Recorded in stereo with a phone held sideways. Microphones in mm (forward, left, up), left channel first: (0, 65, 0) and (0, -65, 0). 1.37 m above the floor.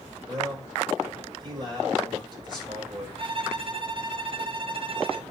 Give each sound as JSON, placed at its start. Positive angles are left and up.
{"t": 0.3, "sound": "a man speaking", "side_deg": -35, "distance_m": 5.5}
{"t": 3.2, "sound": "a violin", "side_deg": -45, "distance_m": 0.8}